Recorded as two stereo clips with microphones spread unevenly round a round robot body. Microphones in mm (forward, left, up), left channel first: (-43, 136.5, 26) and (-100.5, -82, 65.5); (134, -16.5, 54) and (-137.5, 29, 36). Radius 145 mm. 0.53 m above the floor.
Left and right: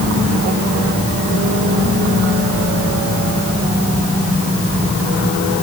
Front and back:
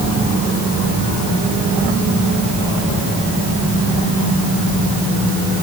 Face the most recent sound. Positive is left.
No sound to turn to.